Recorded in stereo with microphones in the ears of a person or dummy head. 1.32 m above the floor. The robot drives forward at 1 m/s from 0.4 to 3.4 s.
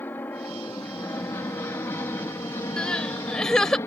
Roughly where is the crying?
Centre.